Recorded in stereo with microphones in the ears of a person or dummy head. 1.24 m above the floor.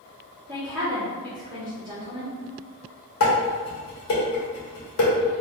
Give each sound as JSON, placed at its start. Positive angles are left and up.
{"t": 0.5, "sound": "a woman speaking", "side_deg": -15, "distance_m": 1.0}
{"t": 3.2, "sound": "dishes clattering", "side_deg": 75, "distance_m": 1.8}